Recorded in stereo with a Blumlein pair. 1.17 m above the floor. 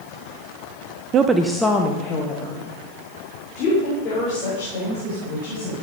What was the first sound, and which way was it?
A woman speaking, 30° right.